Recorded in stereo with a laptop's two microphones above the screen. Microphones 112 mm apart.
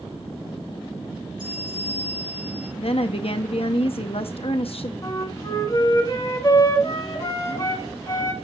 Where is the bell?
50° right (ahead or behind), 6 m.